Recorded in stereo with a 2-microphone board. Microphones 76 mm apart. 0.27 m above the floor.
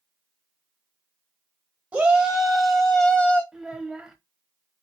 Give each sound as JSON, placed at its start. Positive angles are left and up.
{"t": 1.9, "sound": "a shout", "side_deg": -20, "distance_m": 1.3}
{"t": 3.5, "sound": "a child speaking", "side_deg": -10, "distance_m": 0.8}